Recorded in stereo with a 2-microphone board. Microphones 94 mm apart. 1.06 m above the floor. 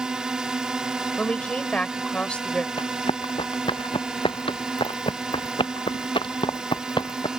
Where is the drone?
10° right (ahead or behind).